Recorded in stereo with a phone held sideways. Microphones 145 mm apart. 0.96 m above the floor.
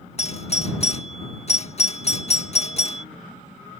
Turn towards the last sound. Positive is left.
turn(degrees=45)  # may be behind; listen again after turning